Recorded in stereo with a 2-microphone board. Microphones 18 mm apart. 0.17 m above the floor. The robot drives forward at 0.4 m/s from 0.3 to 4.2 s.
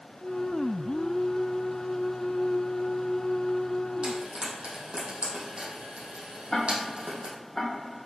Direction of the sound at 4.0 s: 75° right (ahead or behind).